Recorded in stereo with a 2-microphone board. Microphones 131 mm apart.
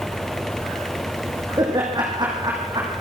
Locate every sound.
1.6 s laughter: 35° right (ahead or behind), 4.5 m